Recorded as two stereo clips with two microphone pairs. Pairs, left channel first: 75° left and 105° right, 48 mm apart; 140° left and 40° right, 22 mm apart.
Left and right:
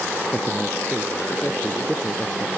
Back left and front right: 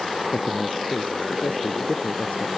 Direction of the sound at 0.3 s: 160° left.